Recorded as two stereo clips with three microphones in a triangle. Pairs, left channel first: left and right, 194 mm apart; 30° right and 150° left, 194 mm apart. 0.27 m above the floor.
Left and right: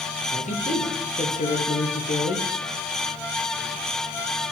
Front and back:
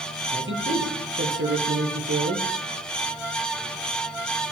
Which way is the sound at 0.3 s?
140° left.